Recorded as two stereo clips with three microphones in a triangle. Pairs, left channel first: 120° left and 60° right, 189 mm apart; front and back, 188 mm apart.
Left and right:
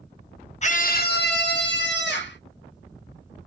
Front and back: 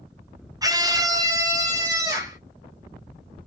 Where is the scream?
125° left, 0.6 m; by 2.4 s 110° left, 1.8 m.